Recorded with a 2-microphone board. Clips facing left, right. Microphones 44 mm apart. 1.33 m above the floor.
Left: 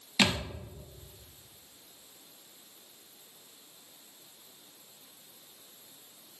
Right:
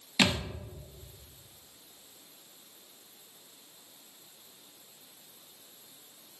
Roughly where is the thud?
Centre.